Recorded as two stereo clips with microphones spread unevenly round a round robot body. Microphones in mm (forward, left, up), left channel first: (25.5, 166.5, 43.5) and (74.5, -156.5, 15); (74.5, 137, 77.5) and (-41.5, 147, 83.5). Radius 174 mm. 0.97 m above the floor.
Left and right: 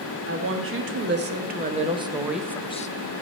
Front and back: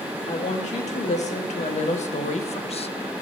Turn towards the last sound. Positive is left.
turn(degrees=30)